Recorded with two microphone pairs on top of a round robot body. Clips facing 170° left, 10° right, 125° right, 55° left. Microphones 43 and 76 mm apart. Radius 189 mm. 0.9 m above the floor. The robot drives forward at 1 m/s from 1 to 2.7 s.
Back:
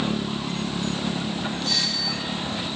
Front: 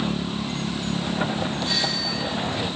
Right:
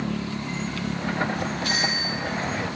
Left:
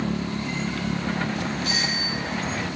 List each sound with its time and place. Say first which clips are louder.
1.6 s a doorbell: front 1 dB, right 1 dB; 80° right, 9 m; by 2.3 s 85° right, 8.5 m